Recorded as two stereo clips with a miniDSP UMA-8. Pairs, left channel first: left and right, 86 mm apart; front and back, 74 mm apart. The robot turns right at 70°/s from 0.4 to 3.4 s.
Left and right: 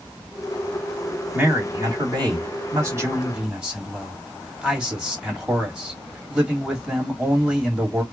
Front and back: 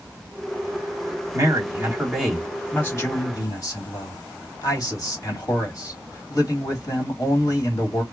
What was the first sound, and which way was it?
A man speaking, 155° right.